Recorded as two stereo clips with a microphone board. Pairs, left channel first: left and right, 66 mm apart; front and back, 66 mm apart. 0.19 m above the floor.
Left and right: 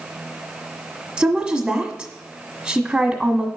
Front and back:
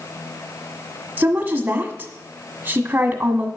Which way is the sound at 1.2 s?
155° right.